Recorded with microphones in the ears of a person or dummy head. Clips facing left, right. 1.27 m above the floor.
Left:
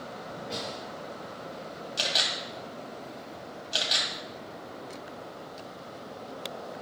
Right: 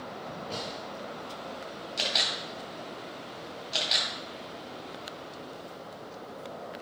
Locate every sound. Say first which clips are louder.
0.5 s a snare drum: left 2 dB; 10° left (ahead or behind), 3 m
2.0 s a camera shutter: left 1 dB; 15° left (ahead or behind), 2.5 m